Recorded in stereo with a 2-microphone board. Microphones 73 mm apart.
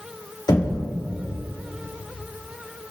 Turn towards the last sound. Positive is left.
turn(degrees=80)